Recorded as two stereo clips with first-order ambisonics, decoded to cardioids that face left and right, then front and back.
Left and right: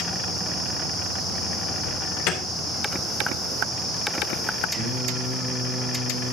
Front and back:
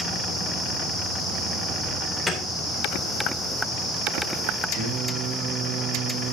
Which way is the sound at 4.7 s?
145° right.